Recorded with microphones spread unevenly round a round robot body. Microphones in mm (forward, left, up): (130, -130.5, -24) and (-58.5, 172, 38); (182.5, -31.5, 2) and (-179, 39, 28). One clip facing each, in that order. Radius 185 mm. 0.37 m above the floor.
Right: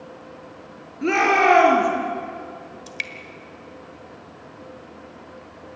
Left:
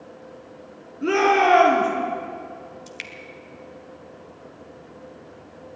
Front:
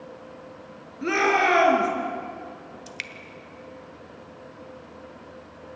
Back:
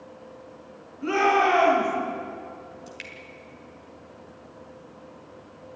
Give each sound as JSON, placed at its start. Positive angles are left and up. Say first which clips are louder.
{"t": 1.0, "sound": "a shout", "louder": "left 1 dB, back 1 dB", "azimuth_deg": 10, "distance_m": 5.5}
{"t": 2.9, "sound": "dripping", "louder": "right 1 dB, even", "azimuth_deg": 15, "distance_m": 1.5}